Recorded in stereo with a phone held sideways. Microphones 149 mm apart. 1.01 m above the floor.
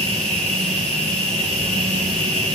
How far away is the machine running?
About 3 m.